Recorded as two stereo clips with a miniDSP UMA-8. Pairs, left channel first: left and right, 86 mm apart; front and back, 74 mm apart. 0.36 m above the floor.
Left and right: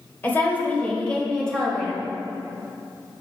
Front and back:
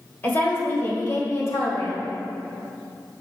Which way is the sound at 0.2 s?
40° left.